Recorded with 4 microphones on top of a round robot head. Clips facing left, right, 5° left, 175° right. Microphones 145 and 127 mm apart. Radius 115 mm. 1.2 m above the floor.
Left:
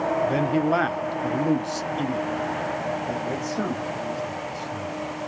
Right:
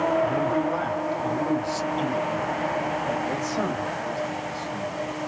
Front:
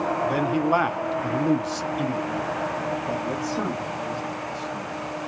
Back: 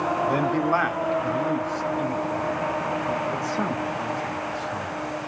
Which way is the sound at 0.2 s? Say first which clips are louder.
Left 1 dB, even; 95° left.